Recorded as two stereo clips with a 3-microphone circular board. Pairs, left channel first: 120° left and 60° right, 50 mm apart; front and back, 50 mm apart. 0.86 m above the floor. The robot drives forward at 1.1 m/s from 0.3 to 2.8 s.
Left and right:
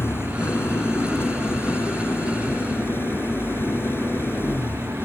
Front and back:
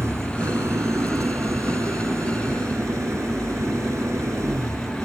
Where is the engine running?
155° left; by 5.0 s 160° left.